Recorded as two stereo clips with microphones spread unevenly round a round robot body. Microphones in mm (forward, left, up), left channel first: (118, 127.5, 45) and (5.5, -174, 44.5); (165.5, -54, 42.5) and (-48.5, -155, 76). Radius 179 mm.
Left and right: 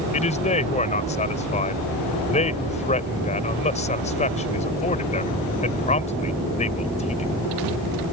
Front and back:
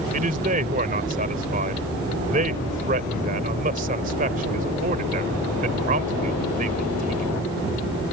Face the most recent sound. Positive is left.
turn(degrees=140)